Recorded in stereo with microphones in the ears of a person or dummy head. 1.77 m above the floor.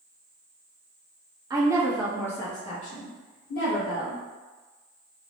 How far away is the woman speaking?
About 0.9 m.